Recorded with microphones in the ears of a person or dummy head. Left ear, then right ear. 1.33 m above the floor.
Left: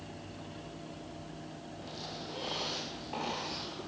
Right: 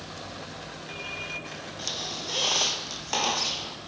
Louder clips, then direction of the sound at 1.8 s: Right 11 dB; 70° right (ahead or behind).